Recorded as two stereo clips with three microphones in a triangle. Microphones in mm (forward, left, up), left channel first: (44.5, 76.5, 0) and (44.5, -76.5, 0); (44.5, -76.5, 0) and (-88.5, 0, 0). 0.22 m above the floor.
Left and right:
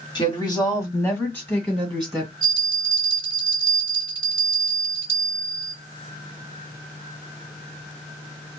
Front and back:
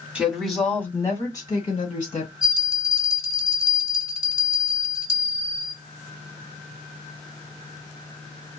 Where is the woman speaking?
75° left, 1.7 m; by 2.3 s straight ahead, 2.5 m.